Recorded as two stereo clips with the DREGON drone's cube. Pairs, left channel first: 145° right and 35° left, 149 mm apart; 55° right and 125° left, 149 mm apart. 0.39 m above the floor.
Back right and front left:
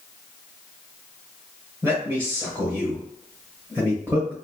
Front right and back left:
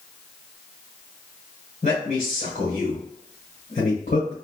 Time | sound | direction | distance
1.8 | a man speaking | 40° right | 1.4 m